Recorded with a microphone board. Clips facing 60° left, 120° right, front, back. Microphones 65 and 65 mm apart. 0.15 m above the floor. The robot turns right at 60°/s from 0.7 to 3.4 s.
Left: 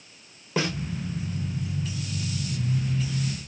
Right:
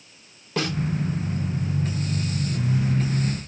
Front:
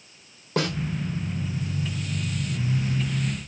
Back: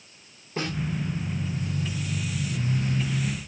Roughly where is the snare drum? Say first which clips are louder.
Right 1 dB, front 5 dB; ahead.